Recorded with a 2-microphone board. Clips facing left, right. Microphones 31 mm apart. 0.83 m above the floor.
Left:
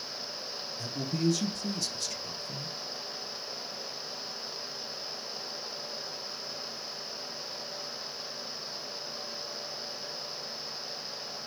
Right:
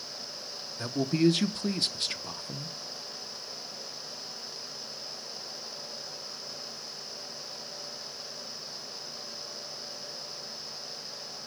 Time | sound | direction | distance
0.8 | a man speaking | 50° right (ahead or behind) | 0.5 m